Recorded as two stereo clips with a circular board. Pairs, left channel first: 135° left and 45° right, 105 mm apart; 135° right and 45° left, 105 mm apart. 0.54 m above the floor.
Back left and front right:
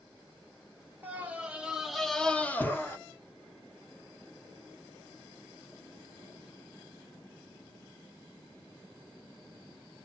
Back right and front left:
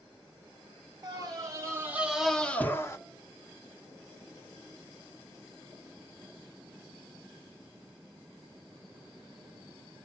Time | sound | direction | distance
1.0 | a scream | 20° left | 0.9 m